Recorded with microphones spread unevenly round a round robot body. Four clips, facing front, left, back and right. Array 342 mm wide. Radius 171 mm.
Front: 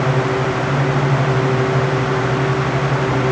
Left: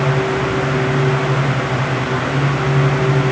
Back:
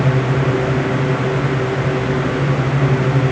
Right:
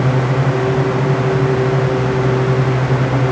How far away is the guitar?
I don't hear a guitar.